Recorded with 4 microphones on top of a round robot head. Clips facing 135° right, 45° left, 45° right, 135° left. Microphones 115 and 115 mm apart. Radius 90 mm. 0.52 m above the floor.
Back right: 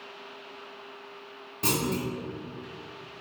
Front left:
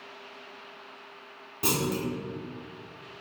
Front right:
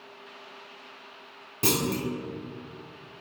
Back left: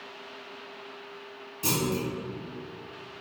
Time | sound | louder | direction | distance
1.6 | a clunk | even, front right 1 dB | 35° right | 0.7 m